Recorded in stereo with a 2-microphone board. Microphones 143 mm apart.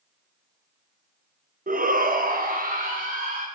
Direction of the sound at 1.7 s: 75° right (ahead or behind).